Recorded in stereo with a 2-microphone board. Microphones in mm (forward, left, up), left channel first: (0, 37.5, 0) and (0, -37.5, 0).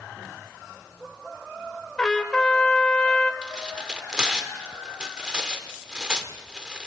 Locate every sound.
2.0 s a trumpet: 10° left (ahead or behind), 1.6 m
3.4 s tearing paper: 10° right (ahead or behind), 1.8 m